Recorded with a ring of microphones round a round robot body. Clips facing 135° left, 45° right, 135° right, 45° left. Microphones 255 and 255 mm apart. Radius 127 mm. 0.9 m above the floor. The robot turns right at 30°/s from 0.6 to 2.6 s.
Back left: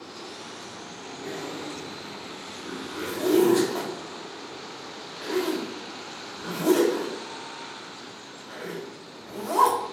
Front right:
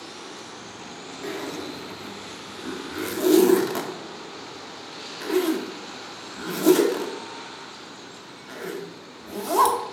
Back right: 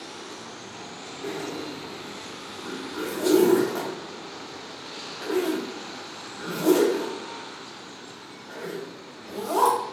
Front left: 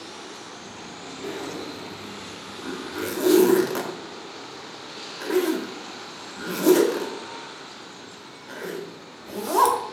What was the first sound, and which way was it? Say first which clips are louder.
A zipper: front right 3 dB, even; 45° right.